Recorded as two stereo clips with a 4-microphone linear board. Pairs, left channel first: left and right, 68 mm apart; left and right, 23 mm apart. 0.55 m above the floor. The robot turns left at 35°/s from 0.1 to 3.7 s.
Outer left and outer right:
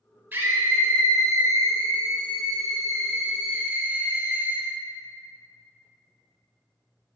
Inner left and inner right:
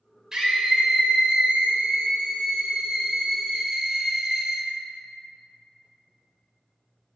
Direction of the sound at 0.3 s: 30° right.